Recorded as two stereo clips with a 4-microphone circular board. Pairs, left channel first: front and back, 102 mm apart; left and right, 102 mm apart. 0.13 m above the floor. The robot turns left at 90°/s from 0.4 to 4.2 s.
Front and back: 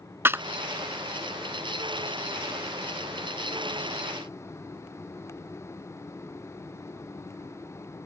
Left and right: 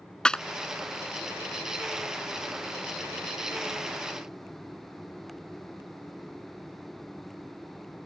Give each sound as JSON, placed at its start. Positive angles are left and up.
{"t": 0.2, "sound": "a clap", "azimuth_deg": 160}